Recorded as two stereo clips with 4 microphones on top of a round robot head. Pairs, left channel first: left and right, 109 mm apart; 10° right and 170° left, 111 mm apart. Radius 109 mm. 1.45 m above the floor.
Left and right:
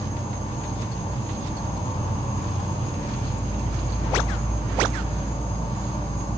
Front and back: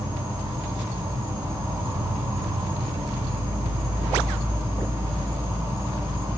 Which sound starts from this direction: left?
An insect, at 0.0 s.